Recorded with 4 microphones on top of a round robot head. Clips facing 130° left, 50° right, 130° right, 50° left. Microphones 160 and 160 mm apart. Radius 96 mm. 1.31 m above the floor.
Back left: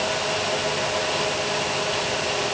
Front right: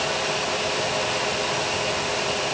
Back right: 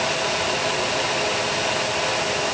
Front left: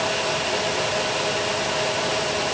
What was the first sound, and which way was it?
Only background noise.